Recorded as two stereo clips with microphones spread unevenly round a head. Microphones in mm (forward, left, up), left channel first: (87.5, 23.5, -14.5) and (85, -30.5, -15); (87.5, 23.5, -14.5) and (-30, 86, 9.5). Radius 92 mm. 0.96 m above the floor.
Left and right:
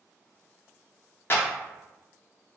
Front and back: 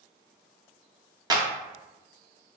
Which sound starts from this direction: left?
A clap, at 1.3 s.